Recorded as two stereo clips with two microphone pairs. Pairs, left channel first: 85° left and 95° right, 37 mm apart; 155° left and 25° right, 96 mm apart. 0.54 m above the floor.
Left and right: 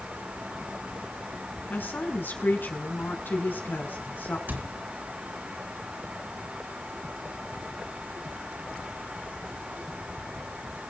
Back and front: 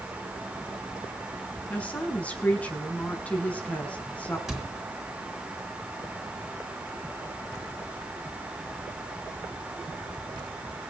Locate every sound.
1.7 s a woman speaking: 80° left, 4.5 m
4.5 s a cupboard door: 115° right, 3.5 m